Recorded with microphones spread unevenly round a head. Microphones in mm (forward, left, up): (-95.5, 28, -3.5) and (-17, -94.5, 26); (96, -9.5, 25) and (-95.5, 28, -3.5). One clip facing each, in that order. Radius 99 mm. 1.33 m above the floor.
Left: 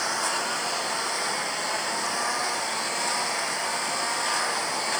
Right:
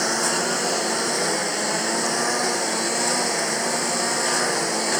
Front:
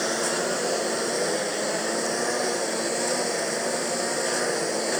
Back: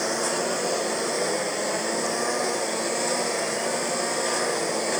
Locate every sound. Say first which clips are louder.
0.0 s a lawn mower: right 6 dB, even; 95° right